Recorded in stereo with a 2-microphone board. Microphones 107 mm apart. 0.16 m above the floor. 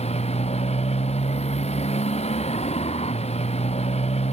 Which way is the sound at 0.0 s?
80° left.